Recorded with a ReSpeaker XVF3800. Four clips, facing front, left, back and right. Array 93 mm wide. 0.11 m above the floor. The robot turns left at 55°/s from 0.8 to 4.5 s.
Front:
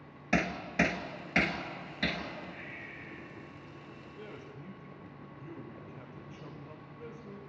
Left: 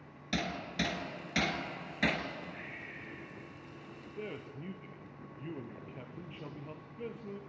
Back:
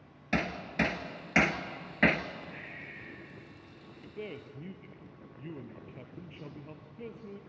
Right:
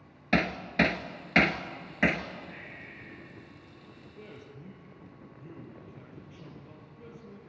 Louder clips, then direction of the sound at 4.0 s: Left 6 dB, back 7 dB; 155° left.